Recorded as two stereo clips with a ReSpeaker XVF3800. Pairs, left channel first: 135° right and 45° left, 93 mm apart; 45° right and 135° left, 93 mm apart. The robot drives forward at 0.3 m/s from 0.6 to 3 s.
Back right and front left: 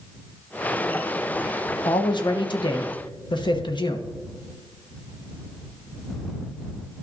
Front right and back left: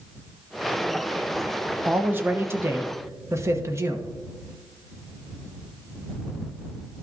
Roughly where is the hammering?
I don't hear hammering.